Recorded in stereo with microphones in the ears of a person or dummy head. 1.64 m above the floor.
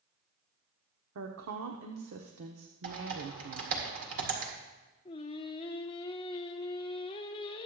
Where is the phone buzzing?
No phone buzzing in this recording.